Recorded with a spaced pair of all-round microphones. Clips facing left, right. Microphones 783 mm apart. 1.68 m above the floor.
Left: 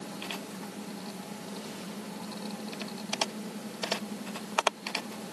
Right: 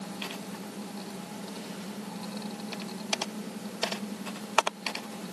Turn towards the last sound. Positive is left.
No sound to turn to.